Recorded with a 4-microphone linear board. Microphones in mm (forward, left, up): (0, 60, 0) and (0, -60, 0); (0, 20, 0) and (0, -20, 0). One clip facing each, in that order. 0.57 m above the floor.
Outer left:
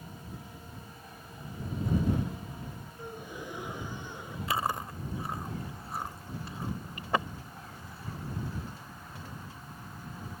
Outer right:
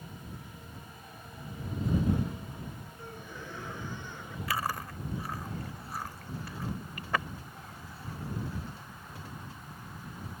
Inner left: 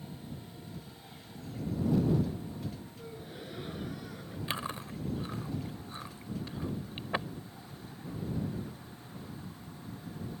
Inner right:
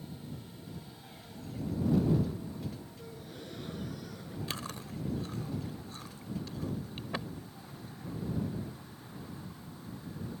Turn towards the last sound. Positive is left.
turn(degrees=25)  # may be behind; listen again after turning